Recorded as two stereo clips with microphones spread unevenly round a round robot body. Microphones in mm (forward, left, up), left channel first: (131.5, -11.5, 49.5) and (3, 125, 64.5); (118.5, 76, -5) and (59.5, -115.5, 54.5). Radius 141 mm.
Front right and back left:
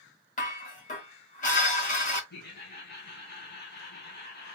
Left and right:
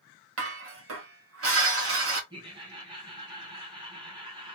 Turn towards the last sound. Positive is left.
turn(degrees=-35)